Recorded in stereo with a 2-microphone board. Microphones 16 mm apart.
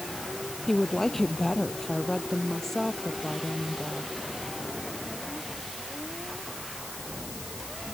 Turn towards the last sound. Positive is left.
turn(degrees=20)  # may be behind; listen again after turning